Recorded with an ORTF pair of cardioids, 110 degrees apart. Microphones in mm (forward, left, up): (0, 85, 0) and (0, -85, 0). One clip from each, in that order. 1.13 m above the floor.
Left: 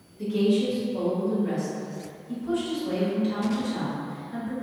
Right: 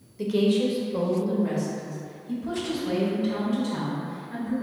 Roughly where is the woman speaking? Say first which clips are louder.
Right 1 dB; ahead right.